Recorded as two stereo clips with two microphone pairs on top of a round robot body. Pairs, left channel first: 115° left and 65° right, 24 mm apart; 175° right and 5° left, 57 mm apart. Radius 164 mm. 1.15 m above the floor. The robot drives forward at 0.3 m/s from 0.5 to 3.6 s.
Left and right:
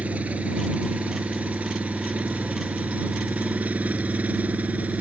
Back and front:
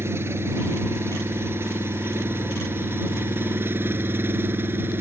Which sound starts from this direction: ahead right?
An engine running, at 0.0 s.